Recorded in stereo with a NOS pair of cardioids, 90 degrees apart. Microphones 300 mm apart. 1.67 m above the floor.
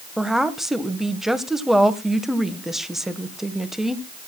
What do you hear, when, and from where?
0.2 s a woman speaking: straight ahead, 1.5 m